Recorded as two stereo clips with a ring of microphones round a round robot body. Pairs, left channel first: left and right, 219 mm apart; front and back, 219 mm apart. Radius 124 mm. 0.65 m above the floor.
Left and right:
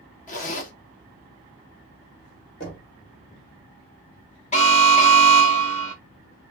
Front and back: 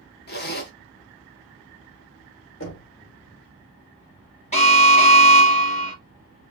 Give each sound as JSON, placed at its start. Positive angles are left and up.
{"t": 0.3, "sound": "a zipper", "azimuth_deg": 40, "distance_m": 1.2}
{"t": 2.6, "sound": "knocking", "azimuth_deg": 35, "distance_m": 2.5}
{"t": 4.5, "sound": "an alarm", "azimuth_deg": 45, "distance_m": 1.8}